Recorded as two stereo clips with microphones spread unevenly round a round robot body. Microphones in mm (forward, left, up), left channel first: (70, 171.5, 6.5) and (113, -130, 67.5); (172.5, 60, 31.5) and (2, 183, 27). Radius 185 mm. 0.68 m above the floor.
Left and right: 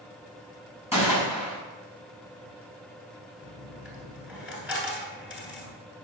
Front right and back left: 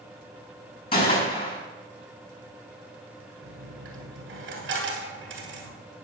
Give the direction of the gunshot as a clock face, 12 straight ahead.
12 o'clock.